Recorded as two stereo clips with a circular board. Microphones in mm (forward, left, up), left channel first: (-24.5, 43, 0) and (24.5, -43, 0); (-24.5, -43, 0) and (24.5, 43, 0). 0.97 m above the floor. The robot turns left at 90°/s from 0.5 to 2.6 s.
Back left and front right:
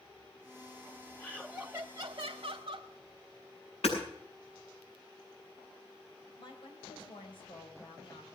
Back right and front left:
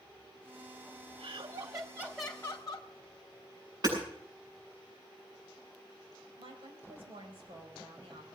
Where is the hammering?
105° left, 7.5 m.